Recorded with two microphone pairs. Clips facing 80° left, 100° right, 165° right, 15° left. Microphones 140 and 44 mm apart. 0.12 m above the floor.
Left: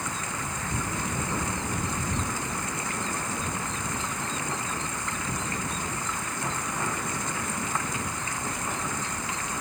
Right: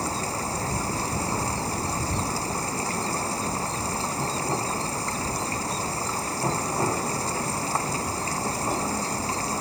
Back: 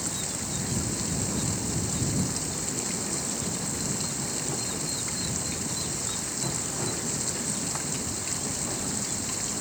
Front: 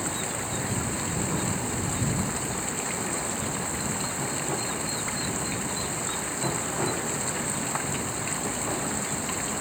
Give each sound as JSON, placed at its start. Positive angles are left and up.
{"t": 0.0, "sound": "running water", "azimuth_deg": -50}